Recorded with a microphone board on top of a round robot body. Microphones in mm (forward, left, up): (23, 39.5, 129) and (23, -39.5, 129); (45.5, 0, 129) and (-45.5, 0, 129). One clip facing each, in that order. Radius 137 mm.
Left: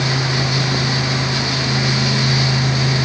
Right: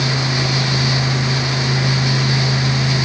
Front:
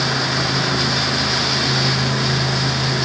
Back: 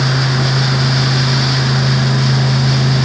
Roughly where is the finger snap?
No finger snap in this recording.